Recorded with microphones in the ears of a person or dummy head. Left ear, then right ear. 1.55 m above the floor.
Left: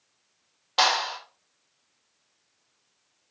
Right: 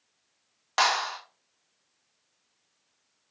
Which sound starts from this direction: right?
A clap, at 0.8 s.